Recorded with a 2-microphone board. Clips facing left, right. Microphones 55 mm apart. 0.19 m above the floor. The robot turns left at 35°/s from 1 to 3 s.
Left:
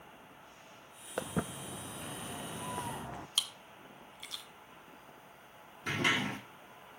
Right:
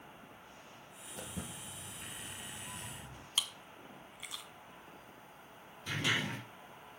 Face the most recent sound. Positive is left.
turn(degrees=50)  # may be behind; listen again after turning